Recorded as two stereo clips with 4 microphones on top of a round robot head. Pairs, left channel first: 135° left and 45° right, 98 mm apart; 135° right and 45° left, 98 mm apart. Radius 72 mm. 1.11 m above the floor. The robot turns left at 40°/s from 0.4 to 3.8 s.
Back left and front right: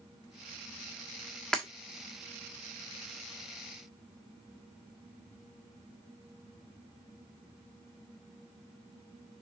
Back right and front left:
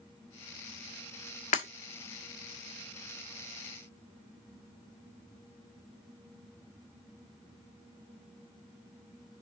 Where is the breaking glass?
140° right, 1.3 m; by 1.7 s 145° right, 1.3 m.